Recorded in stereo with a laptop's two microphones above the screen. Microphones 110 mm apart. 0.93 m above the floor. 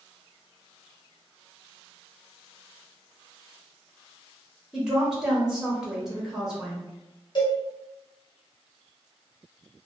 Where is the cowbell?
45° left (ahead or behind), 0.8 m.